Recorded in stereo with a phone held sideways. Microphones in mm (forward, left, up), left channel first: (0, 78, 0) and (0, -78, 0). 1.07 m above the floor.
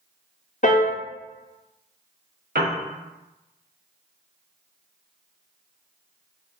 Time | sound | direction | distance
0.6 | a piano | 55° left (ahead or behind) | 0.6 m
2.5 | a piano | 80° right | 0.8 m